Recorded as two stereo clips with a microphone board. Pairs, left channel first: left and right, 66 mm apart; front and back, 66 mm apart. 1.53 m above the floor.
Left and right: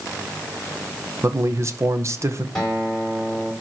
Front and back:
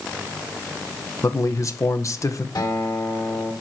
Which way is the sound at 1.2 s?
40° right.